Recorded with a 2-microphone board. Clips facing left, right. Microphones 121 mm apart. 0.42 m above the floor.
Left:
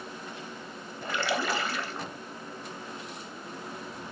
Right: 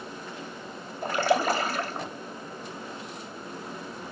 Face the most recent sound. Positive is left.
turn(degrees=-45)  # may be behind; listen again after turning